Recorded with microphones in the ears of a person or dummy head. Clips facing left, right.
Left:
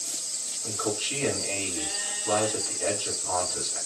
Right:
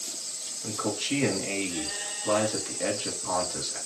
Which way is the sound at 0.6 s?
70° right (ahead or behind).